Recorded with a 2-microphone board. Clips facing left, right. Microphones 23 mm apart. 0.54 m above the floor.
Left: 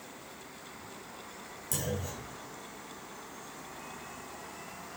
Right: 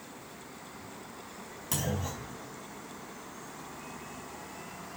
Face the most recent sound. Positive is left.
turn(degrees=-35)  # may be behind; listen again after turning